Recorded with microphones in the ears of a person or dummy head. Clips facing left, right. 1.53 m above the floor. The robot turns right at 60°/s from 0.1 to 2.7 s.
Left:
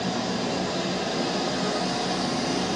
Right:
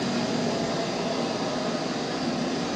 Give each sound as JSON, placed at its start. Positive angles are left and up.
{"t": 0.0, "sound": "an engine running", "azimuth_deg": -40, "distance_m": 1.1}